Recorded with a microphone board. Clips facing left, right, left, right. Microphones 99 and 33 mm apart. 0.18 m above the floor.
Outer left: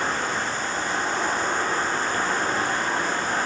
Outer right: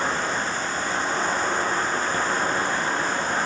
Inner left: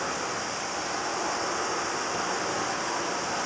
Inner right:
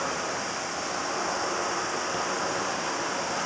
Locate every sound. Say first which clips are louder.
0.0 s an insect: outer right 1 dB, inner right 1 dB; 25° right (ahead or behind), 7 m